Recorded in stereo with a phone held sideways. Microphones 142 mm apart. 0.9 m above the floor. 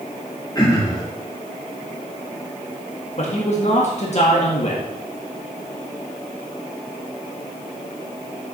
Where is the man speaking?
50° left (ahead or behind), 1.5 m.